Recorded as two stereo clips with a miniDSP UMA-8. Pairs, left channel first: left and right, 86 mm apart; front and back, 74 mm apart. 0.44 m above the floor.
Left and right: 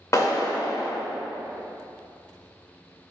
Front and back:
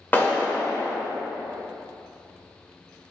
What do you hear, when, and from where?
0.1 s a clap: 55° left, 1.4 m